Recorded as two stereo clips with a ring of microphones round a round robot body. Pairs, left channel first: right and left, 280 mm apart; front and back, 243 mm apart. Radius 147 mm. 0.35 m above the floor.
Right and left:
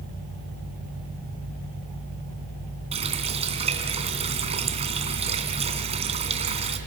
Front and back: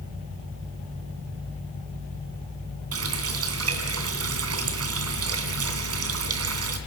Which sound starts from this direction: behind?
A running tap, at 2.9 s.